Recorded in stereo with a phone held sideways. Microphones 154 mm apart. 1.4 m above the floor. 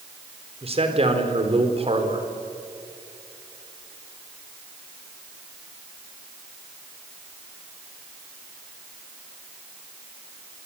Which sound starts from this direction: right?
A man speaking, at 0.6 s.